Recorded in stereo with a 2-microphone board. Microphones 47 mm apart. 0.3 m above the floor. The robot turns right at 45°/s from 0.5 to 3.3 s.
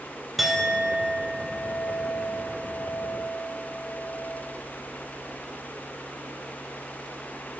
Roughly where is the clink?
Ahead.